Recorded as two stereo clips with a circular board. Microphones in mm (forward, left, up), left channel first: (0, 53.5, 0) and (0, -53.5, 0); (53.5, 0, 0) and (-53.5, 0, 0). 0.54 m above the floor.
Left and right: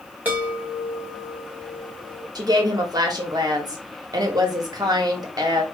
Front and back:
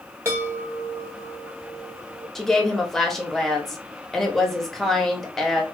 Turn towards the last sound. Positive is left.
turn(degrees=-85)